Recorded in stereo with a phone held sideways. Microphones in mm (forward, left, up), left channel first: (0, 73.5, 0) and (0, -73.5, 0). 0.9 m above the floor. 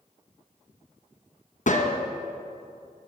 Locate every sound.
1.7 s a gunshot: 60° left (ahead or behind), 0.7 m